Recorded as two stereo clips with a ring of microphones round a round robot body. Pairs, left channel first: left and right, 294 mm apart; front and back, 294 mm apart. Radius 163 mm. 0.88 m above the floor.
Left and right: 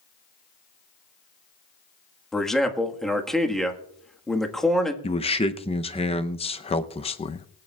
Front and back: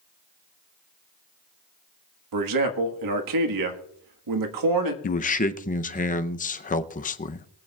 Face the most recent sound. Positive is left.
turn(degrees=35)